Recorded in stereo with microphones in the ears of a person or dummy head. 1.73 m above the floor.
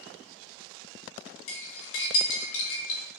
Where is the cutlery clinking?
35° left (ahead or behind), 1.4 m.